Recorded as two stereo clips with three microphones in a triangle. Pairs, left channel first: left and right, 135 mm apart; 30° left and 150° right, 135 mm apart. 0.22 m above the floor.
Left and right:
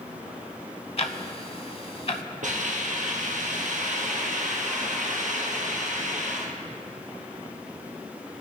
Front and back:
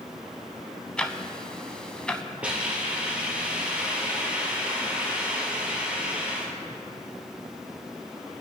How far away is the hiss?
About 2 m.